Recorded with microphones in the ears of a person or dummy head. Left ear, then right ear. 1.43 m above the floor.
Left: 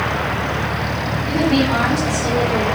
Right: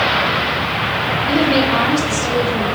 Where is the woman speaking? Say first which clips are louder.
Right 2 dB; 45° left (ahead or behind), 3.5 m.